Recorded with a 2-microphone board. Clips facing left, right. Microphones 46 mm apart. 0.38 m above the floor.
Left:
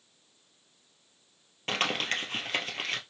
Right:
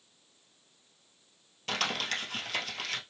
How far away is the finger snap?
No finger snap in this recording.